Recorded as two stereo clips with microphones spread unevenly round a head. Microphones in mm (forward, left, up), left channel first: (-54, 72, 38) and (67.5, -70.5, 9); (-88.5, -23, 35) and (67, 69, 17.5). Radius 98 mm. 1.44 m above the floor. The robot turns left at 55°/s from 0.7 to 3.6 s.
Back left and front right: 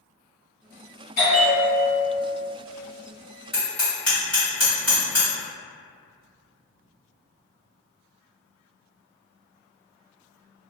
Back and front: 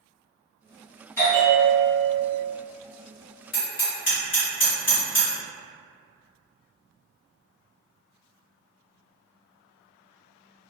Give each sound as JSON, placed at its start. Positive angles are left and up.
{"t": 1.2, "sound": "a bell", "azimuth_deg": 150, "distance_m": 1.4}
{"t": 3.5, "sound": "hammering", "azimuth_deg": -155, "distance_m": 1.4}